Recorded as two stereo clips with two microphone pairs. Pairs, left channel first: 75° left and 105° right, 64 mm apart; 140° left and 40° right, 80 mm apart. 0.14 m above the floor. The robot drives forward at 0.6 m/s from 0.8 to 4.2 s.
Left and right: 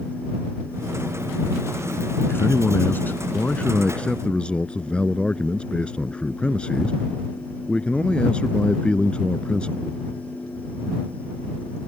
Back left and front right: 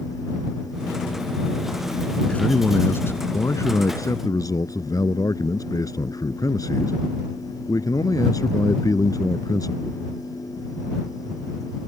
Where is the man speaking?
75° left; by 10.0 s 140° left.